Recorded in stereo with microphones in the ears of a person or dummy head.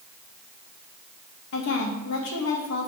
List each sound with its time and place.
1.5 s a woman speaking: 60° left (ahead or behind), 1.6 m